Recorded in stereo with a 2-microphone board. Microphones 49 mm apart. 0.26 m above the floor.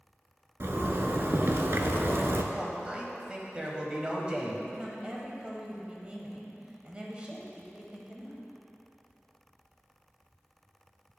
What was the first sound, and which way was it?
A zipper, 60° right (ahead or behind).